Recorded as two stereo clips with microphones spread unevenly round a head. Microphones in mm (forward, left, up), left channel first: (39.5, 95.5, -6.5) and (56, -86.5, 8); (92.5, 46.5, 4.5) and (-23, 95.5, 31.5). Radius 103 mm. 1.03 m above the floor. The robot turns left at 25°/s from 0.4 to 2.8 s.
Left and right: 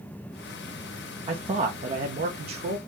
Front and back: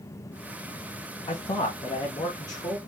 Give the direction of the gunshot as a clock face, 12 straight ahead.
No gunshot in this recording.